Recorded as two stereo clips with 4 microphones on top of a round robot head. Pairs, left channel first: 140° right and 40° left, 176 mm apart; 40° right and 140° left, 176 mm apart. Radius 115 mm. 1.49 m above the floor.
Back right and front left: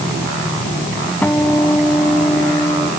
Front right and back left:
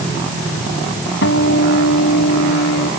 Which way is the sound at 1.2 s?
60° right.